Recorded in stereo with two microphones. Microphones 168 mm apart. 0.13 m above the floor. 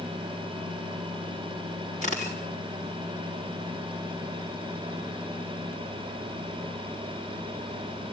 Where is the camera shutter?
50° left (ahead or behind), 4.5 m.